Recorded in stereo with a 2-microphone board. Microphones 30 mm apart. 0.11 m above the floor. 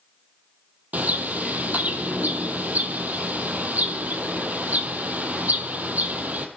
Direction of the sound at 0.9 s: 65° right (ahead or behind).